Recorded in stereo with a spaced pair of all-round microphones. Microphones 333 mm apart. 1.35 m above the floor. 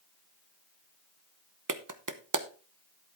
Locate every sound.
1.7 s a clap: 65° right (ahead or behind), 0.8 m